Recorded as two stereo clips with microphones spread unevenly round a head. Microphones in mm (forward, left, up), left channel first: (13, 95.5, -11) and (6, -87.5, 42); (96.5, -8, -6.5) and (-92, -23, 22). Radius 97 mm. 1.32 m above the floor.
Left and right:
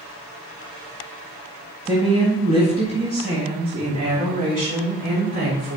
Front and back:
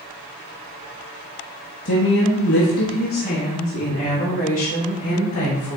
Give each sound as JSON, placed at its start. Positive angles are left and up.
{"t": 1.9, "sound": "a woman speaking", "azimuth_deg": -25, "distance_m": 1.7}